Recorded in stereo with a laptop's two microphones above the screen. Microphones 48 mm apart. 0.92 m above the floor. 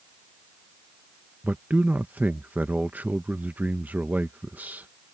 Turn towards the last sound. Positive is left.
turn(degrees=-35)  # may be behind; listen again after turning